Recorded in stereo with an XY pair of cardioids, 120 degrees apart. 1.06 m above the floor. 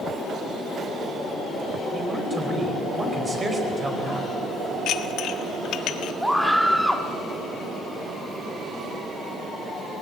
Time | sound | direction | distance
1.9 | a man speaking | 25° right | 4.5 m
4.9 | dishes clattering | 70° left | 1.1 m
6.2 | a scream | straight ahead | 1.9 m